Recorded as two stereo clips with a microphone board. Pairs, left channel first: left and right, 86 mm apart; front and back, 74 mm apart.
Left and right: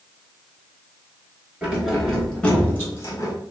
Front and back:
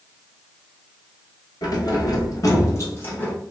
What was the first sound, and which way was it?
Keys jangling, 10° right.